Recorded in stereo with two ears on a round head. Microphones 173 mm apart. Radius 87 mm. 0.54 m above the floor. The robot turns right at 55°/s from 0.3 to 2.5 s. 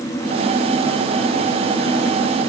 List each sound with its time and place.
Only background noise.